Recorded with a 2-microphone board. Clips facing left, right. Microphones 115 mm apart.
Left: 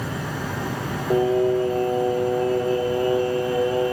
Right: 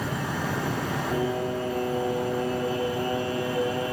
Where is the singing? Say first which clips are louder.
Left 11 dB; 70° left (ahead or behind), 1.5 m.